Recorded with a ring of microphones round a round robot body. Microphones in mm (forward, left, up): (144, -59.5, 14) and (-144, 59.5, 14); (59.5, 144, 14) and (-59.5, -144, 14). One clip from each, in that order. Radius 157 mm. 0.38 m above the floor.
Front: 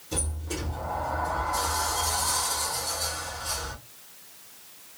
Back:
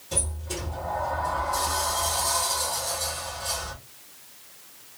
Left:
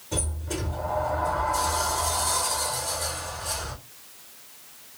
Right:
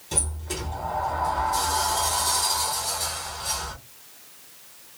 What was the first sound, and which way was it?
A sliding door, 135° right.